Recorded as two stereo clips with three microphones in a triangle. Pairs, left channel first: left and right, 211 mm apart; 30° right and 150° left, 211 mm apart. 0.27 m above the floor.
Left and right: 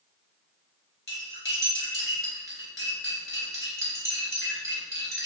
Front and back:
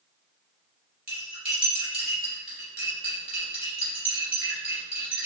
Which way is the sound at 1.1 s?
105° left.